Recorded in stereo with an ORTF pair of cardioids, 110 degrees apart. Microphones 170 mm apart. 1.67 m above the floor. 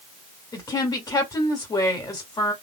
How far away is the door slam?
No door slam in this recording.